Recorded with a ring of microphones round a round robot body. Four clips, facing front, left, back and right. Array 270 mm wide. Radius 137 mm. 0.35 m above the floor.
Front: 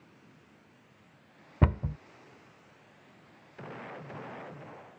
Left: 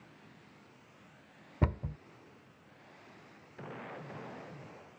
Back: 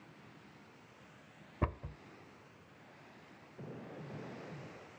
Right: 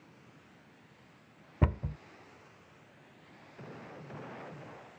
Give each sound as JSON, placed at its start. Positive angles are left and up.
{"t": 1.6, "sound": "a cupboard door", "azimuth_deg": -10}